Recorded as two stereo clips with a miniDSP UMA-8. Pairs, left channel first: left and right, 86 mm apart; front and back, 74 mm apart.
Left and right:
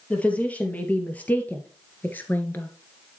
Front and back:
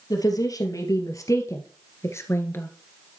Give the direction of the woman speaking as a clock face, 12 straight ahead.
11 o'clock.